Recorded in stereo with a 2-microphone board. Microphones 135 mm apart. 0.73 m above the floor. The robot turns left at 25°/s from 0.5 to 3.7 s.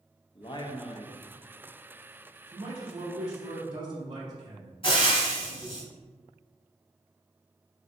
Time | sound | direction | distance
0.3 | a man speaking | 35° left (ahead or behind) | 0.6 m
2.5 | a man speaking | 35° right (ahead or behind) | 0.6 m
4.8 | frying | 45° left (ahead or behind) | 1.1 m